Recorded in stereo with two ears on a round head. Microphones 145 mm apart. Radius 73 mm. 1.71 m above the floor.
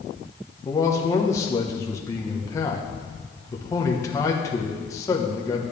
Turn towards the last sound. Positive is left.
turn(degrees=20)  # may be behind; listen again after turning